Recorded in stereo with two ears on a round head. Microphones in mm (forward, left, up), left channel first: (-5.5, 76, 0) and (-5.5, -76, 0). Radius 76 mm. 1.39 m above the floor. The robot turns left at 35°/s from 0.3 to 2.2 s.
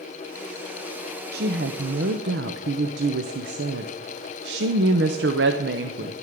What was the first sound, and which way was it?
A woman speaking, 65° right.